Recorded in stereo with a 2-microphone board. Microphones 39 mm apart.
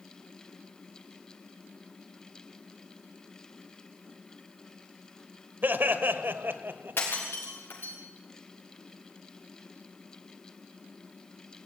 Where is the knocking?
I don't hear knocking.